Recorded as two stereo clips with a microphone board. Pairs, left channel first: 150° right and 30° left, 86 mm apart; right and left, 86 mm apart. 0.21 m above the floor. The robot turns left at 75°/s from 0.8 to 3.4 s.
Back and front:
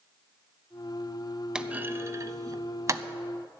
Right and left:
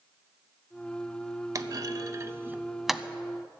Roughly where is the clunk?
Left.